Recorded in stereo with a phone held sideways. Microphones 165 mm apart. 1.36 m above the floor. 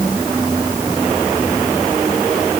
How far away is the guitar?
I don't hear a guitar.